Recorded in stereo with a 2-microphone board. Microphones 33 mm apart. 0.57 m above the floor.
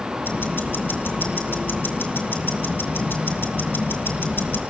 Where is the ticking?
80° left, 3.5 m.